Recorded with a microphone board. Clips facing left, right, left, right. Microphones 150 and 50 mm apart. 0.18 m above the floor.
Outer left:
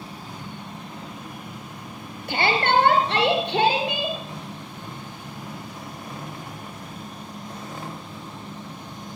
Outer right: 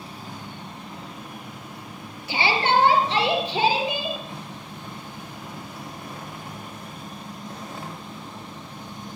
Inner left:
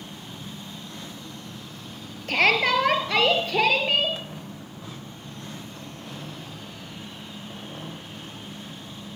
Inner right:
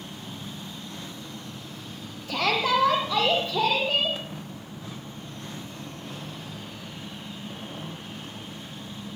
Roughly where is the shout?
Left.